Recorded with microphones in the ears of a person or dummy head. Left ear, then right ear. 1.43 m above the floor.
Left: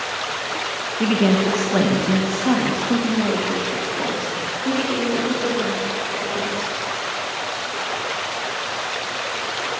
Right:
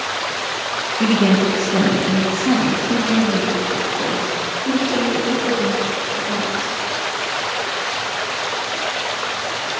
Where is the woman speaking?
5° left (ahead or behind), 0.8 m; by 6.7 s 45° left (ahead or behind), 4 m.